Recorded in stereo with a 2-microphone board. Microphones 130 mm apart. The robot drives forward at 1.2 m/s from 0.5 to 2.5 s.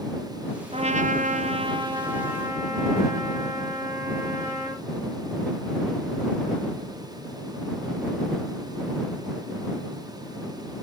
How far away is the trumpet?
About 0.8 m.